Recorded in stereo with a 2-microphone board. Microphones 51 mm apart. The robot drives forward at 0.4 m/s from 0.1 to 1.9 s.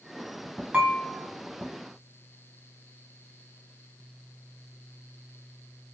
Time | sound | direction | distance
0.7 | dishes clattering | 30° right (ahead or behind) | 1.4 m